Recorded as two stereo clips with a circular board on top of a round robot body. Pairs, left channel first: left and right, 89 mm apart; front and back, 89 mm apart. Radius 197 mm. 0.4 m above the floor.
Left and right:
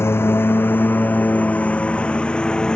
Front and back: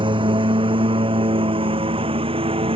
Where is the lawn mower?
155° left; by 2.8 s 170° left.